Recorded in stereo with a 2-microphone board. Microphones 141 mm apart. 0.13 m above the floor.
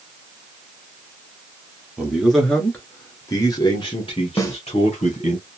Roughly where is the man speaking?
Centre.